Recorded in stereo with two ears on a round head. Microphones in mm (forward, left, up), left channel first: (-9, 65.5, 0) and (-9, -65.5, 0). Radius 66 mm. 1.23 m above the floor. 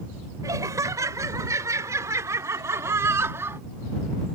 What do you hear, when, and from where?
0.4 s laughter: 25° right (ahead or behind); by 3.6 s 15° right (ahead or behind)